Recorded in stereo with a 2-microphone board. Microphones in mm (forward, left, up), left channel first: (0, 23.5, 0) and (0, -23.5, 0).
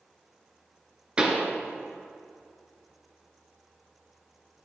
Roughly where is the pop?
Right.